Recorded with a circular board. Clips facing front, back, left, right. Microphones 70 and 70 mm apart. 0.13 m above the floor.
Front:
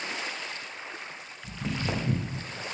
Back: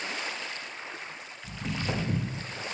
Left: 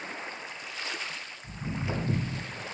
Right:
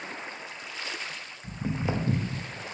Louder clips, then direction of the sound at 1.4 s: Front 1 dB, right 4 dB; 80° right.